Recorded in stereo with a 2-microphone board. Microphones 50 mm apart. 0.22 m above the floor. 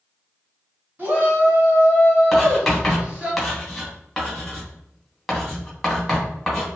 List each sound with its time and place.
1.0 s a shout: 40° right (ahead or behind), 1.9 m; by 3.3 s 25° right (ahead or behind), 1.8 m
2.3 s writing: 5° left (ahead or behind), 1.1 m